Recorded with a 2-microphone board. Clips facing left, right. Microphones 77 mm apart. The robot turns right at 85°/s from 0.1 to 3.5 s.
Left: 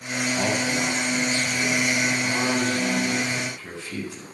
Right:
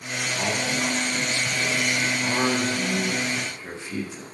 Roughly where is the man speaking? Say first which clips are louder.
Left 2 dB; left.